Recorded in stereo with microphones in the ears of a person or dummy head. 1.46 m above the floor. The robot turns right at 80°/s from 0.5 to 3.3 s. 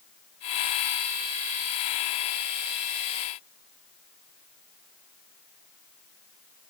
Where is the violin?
I don't hear a violin.